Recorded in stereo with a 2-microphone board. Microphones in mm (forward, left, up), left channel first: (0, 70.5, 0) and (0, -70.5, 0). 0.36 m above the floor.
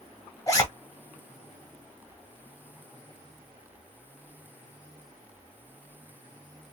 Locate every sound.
0.5 s a zipper: 25° left (ahead or behind), 1.5 m